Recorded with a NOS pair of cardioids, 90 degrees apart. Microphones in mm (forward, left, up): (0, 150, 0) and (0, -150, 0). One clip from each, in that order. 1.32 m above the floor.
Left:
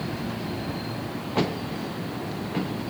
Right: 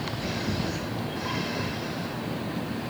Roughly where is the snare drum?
No snare drum in this recording.